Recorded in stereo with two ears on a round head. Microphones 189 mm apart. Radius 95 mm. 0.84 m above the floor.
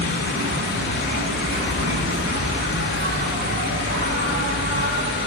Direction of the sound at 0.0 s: 50° right (ahead or behind).